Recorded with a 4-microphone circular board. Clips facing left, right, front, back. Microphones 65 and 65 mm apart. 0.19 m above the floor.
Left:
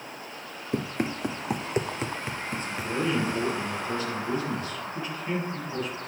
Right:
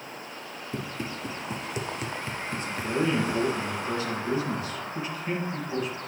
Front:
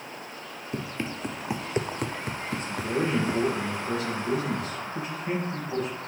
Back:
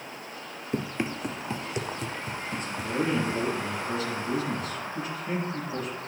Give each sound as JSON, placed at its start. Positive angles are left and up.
{"t": 0.7, "sound": "running footsteps", "azimuth_deg": 115, "distance_m": 1.0}
{"t": 2.5, "sound": "a man speaking", "azimuth_deg": -20, "distance_m": 5.0}